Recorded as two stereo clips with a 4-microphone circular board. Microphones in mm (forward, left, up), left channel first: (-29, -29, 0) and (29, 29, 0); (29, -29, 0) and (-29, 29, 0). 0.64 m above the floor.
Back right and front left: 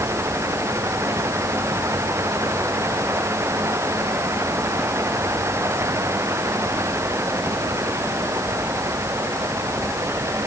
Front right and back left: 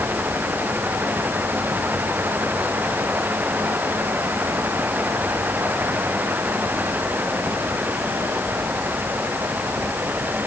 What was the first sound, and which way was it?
Only background noise.